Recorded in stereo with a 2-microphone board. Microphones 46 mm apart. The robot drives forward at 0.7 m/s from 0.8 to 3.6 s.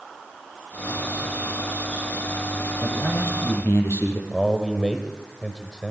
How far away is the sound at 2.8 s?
About 5 m.